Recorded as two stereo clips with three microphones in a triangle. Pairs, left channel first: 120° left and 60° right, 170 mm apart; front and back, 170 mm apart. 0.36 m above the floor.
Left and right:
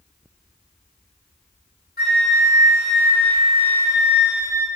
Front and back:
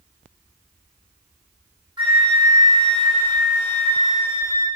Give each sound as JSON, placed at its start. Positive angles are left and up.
{"t": 2.0, "sound": "a flute", "azimuth_deg": 120, "distance_m": 1.6}